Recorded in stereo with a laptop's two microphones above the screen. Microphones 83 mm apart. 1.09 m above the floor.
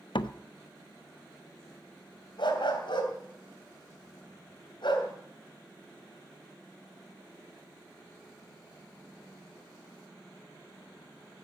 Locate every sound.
0.1 s a door slam: 75° left (ahead or behind), 0.6 m
2.4 s a dog barking: 75° left (ahead or behind), 3 m